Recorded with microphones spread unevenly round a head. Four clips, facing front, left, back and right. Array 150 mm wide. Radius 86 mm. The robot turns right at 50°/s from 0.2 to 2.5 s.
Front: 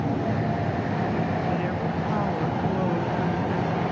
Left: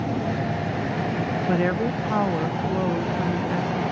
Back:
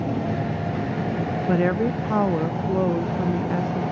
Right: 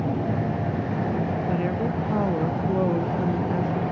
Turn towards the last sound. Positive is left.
turn(degrees=-145)